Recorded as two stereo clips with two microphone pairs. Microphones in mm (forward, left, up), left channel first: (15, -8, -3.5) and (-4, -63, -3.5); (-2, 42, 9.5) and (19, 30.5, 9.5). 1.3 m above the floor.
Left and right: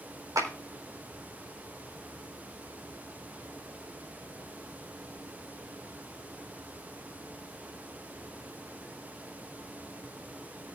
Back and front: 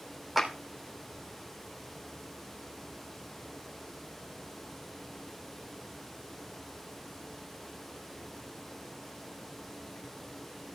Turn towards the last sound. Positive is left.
turn(degrees=-115)